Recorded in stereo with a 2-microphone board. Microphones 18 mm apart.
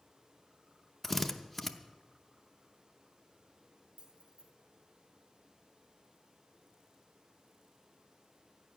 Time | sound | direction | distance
1.0 | a drill | 5° left (ahead or behind) | 0.7 m
4.0 | keys jangling | 75° right (ahead or behind) | 2 m